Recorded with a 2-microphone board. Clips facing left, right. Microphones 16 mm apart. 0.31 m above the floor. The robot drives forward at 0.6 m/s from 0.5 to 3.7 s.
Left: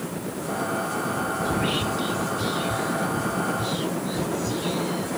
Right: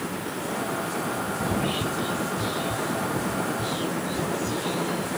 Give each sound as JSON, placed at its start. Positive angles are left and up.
{"t": 1.4, "sound": "whispering", "side_deg": 15, "distance_m": 0.9}